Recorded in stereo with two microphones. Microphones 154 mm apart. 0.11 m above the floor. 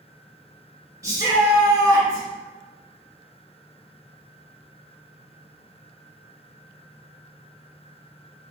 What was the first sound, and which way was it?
A shout, 20° right (ahead or behind).